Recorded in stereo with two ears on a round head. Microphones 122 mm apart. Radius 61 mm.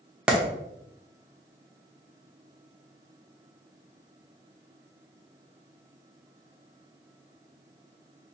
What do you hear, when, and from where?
0.3 s a clap: 5° right (ahead or behind), 0.8 m